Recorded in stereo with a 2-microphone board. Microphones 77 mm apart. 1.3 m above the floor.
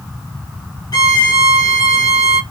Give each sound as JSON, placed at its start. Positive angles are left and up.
{"t": 0.9, "sound": "a violin", "side_deg": 55, "distance_m": 1.2}